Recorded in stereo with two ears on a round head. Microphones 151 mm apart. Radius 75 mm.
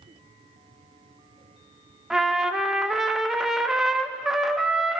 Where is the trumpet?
Centre (ahead or behind), 0.8 m.